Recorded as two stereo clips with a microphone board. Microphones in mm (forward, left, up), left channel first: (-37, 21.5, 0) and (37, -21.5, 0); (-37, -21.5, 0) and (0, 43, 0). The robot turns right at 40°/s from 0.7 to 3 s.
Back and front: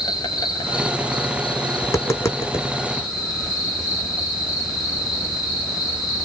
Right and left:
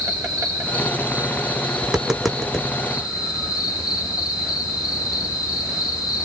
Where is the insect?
105° left, 9 m; by 6.2 s 160° right, 9 m.